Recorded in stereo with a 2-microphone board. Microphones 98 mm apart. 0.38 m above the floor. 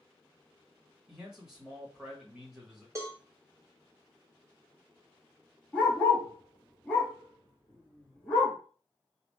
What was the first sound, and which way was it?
A man speaking, 5° right (ahead or behind).